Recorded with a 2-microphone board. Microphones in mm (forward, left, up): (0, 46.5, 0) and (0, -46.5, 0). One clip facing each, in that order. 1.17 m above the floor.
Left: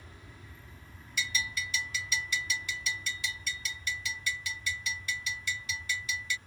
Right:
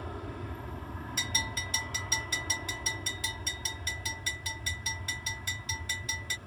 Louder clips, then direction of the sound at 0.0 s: Right 13 dB; 65° right (ahead or behind).